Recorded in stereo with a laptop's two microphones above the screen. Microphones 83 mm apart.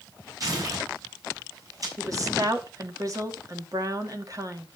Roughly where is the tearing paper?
Right.